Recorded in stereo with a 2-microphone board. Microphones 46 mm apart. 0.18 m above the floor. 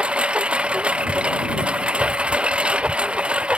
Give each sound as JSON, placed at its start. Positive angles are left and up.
{"t": 0.0, "sound": "a lawn mower", "side_deg": -25}